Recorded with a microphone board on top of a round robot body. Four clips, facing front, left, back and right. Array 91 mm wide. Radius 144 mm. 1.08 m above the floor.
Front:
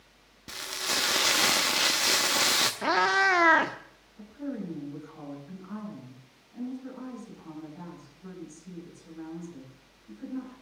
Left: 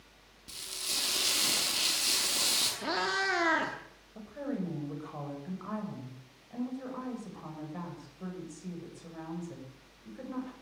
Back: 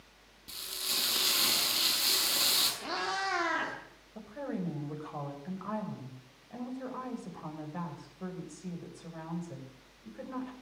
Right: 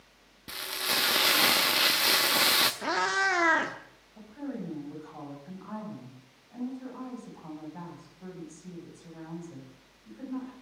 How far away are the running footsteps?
No running footsteps in this recording.